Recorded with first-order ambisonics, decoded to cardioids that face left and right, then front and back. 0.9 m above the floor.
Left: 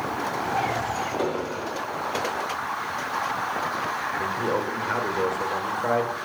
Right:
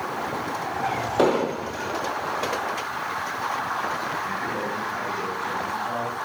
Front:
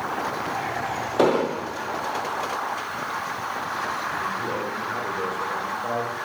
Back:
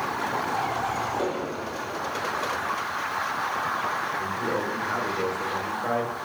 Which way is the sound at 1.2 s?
35° right.